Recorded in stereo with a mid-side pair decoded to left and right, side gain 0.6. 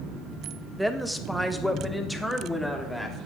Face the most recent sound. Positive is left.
turn(degrees=5)